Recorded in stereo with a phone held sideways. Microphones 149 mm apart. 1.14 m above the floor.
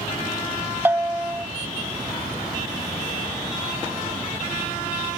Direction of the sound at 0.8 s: 15° right (ahead or behind).